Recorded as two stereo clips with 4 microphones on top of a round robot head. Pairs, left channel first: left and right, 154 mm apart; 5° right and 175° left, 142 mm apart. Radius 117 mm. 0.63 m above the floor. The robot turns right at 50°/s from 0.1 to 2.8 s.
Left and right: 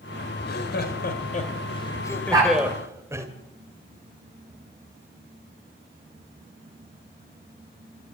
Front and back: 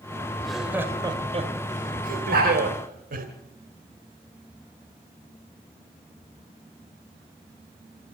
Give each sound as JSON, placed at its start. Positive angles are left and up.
{"t": 0.4, "sound": "laughter", "azimuth_deg": 75, "distance_m": 2.5}
{"t": 2.3, "sound": "a dog barking", "azimuth_deg": -160, "distance_m": 10.0}